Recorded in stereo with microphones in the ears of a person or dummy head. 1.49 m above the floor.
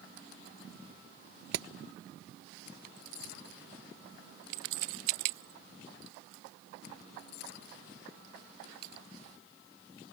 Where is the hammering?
65° right (ahead or behind).